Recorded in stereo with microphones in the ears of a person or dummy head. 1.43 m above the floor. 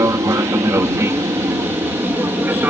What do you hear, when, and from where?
0.0 s an aircraft: 20° right (ahead or behind); by 2.7 s 10° right (ahead or behind)